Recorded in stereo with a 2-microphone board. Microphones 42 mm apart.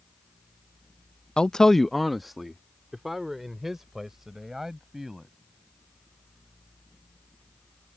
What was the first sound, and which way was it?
A man speaking, 25° left (ahead or behind).